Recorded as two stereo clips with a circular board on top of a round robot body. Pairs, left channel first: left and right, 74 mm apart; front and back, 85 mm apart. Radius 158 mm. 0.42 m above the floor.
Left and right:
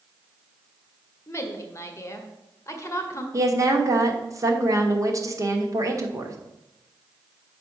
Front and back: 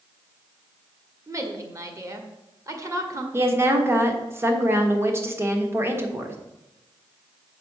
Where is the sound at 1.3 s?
135° left, 1.7 m.